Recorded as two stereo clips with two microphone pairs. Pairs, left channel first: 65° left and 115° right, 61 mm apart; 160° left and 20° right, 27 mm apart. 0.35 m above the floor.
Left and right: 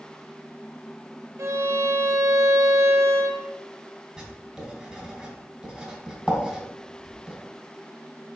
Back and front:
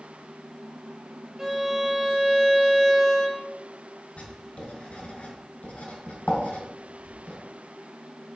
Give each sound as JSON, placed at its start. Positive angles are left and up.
{"t": 1.4, "sound": "a violin", "azimuth_deg": -90, "distance_m": 1.0}
{"t": 4.2, "sound": "writing", "azimuth_deg": 170, "distance_m": 2.5}